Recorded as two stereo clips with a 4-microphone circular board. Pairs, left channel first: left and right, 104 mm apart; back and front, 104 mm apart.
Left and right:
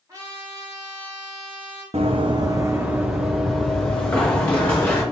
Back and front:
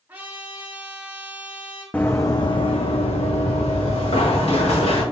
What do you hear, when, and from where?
0.1 s a trumpet: 60° right, 1.4 m
1.9 s running footsteps: 105° right, 0.6 m; by 5.0 s 165° left, 1.8 m